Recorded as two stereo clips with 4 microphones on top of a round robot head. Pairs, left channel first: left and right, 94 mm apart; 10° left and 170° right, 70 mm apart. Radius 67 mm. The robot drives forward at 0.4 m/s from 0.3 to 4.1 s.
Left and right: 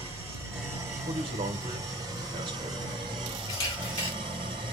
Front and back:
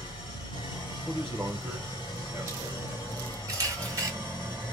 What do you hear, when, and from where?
0.0 s an engine running: 30° right, 2.5 m; by 4.7 s 75° right, 1.4 m
1.1 s a man speaking: 75° right, 1.3 m; by 3.0 s 115° right, 1.3 m
3.5 s a camera shutter: 155° left, 1.7 m